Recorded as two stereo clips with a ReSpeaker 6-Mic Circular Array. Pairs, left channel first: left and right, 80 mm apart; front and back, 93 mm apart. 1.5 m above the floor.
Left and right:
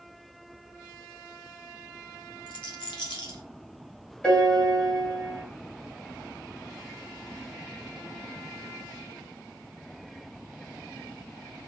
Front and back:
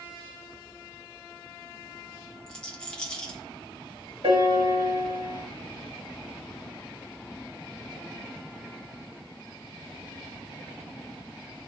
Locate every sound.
2.5 s a rattle: 80° left, 1.1 m
4.2 s a piano: 165° left, 1.5 m